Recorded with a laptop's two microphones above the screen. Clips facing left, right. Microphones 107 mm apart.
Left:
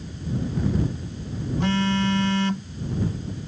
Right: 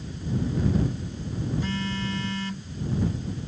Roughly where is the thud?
I don't hear a thud.